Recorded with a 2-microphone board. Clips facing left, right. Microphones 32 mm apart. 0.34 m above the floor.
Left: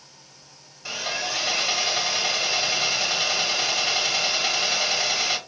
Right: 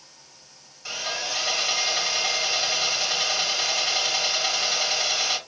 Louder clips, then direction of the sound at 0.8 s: Left 1 dB; 5° left (ahead or behind).